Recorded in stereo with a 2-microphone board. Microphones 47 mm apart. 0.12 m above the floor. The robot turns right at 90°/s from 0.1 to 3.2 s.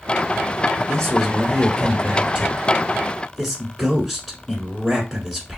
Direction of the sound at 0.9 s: 15° left (ahead or behind).